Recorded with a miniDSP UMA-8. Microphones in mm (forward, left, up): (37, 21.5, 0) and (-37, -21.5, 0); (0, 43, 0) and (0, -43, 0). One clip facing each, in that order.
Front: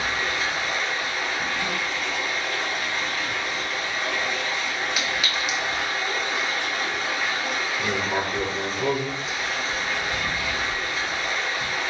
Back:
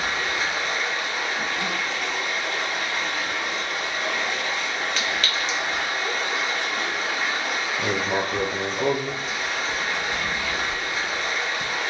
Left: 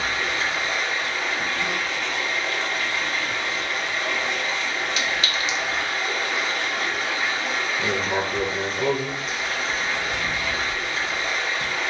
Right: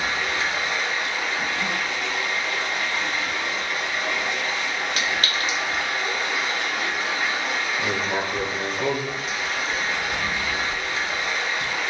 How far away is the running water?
About 1.2 m.